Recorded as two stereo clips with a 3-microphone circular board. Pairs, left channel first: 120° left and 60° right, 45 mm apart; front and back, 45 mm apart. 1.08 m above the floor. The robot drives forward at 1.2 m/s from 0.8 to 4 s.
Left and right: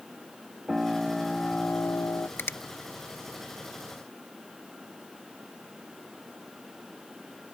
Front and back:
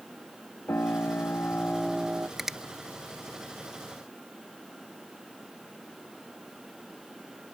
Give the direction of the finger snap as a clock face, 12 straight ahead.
9 o'clock.